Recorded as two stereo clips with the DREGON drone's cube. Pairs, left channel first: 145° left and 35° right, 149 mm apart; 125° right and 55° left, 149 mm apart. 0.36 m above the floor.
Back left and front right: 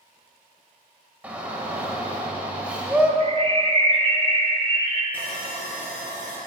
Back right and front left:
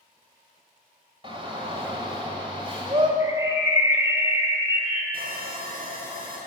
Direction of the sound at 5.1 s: 70° left.